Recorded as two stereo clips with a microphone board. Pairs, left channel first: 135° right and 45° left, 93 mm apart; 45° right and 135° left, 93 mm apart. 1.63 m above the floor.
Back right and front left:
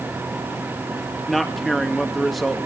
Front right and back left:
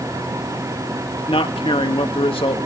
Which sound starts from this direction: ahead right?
A man speaking, at 1.3 s.